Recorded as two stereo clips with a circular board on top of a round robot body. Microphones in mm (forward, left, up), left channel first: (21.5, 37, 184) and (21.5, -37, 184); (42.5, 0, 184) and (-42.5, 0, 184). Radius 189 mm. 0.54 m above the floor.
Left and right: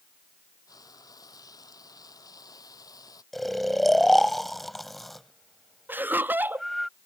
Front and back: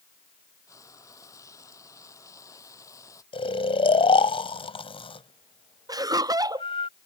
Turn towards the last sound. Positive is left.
turn(degrees=-150)